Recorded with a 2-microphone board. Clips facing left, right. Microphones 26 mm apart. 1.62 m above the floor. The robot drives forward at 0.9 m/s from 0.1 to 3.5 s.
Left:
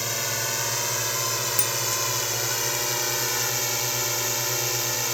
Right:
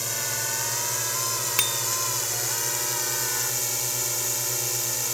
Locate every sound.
0.0 s a drone: 20° left (ahead or behind)
1.6 s a bicycle bell: 50° right (ahead or behind)